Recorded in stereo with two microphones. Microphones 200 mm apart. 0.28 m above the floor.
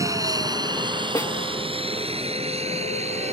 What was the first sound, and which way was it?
An aircraft, 15° right (ahead or behind).